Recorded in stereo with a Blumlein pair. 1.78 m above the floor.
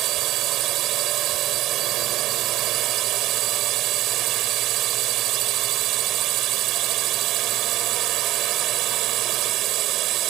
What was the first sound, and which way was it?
A drone, 35° right.